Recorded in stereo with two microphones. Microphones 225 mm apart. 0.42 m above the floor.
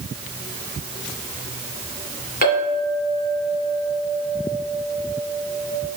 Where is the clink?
40° left (ahead or behind), 2.5 m.